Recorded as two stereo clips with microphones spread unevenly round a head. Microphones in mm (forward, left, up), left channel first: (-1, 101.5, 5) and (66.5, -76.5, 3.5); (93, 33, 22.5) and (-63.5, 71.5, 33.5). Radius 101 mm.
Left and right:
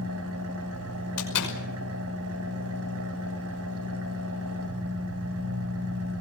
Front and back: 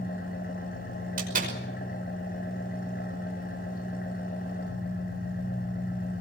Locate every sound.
0.0 s an engine running: 65° right, 4.5 m
1.2 s a door slam: 130° left, 5.5 m